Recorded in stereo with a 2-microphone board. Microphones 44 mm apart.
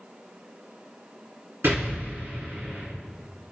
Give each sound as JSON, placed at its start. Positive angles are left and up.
{"t": 1.6, "sound": "an explosion", "side_deg": -70, "distance_m": 2.5}